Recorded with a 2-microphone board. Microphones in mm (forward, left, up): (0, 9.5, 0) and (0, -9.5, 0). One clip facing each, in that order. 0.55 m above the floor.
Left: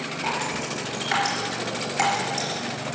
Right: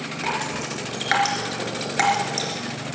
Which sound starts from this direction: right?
Dripping, at 0.2 s.